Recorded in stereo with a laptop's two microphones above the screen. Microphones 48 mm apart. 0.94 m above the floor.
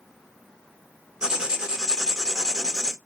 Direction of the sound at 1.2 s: 15° right (ahead or behind).